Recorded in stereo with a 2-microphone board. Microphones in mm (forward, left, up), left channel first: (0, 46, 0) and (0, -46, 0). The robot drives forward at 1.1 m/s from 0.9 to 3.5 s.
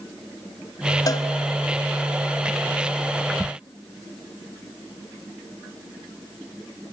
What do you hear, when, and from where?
1.1 s a cowbell: 40° left (ahead or behind), 0.6 m; by 1.3 s 35° left (ahead or behind), 0.7 m